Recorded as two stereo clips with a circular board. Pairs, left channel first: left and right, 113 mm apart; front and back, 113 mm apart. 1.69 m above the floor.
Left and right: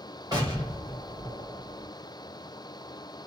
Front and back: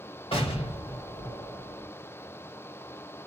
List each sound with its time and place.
0.3 s an explosion: 35° right, 1.5 m